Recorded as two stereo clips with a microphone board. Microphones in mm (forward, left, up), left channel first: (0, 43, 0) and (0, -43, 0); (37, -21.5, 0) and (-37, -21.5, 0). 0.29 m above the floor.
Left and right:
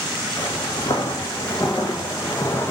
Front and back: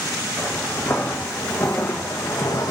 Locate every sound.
0.4 s footsteps: 55° left, 1.8 m; by 2.7 s 25° left, 0.7 m